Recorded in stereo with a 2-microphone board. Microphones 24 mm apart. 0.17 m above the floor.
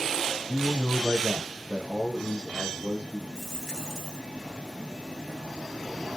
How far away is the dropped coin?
About 1.0 m.